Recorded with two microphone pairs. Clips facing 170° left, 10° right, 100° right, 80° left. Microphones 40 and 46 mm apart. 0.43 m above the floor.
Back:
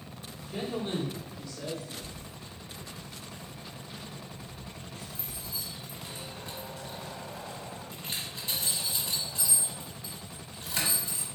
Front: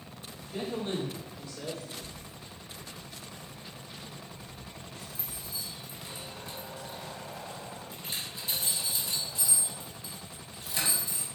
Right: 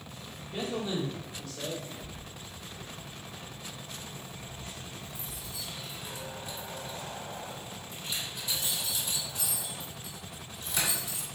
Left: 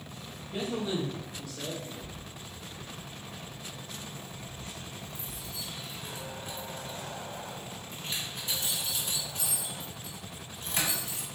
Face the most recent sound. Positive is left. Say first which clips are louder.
# back 1 dB, left 1 dB
turn(degrees=130)